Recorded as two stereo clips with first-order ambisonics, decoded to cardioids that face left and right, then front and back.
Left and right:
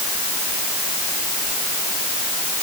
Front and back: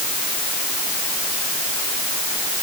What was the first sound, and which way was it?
Only background noise.